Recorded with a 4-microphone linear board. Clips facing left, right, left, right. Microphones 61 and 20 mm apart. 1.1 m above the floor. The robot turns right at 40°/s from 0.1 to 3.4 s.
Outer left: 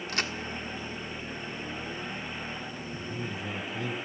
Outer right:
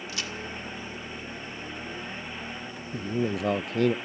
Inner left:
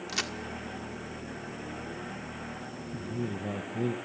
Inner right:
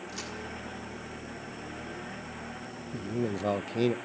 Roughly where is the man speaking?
Right.